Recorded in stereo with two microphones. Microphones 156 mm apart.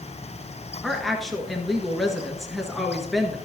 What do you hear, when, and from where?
0.8 s a woman speaking: centre (ahead or behind), 1.4 m